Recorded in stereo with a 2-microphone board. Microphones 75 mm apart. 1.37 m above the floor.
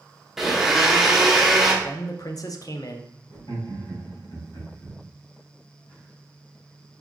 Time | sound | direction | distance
0.4 | a blender | 5° right (ahead or behind) | 0.8 m
1.8 | a man speaking | 50° left (ahead or behind) | 0.5 m
3.3 | laughter | 75° left (ahead or behind) | 2.5 m